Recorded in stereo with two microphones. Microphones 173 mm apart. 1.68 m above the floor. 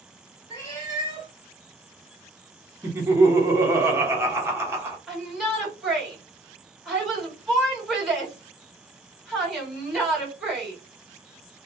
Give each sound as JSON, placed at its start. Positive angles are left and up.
{"t": 0.5, "sound": "a cat meowing", "side_deg": 25, "distance_m": 1.3}
{"t": 2.8, "sound": "laughter", "side_deg": -15, "distance_m": 1.0}
{"t": 5.1, "sound": "a shout", "side_deg": 0, "distance_m": 1.8}